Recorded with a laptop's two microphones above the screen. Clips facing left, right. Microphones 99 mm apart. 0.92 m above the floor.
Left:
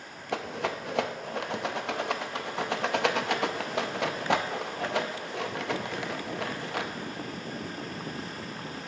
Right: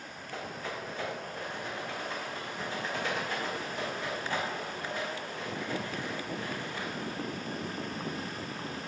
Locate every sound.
0.3 s a rattle: 80° left, 0.5 m